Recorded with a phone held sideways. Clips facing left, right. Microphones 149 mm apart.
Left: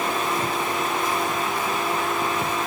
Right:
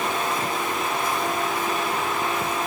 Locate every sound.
Only background noise.